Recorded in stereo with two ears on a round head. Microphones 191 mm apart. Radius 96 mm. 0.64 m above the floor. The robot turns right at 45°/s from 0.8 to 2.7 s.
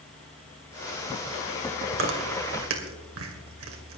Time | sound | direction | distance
1.9 | chewing | 65° right (ahead or behind) | 2.5 m